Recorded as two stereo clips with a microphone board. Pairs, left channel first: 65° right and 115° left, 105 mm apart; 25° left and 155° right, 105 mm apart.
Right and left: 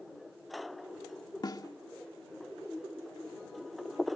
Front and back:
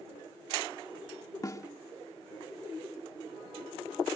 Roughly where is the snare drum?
Ahead right.